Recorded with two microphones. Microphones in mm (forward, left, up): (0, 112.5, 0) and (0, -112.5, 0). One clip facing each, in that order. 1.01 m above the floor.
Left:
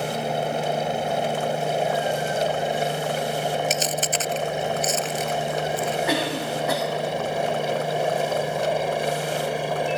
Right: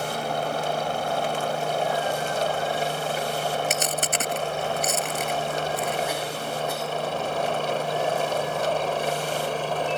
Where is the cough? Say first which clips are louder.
Left 5 dB; 85° left.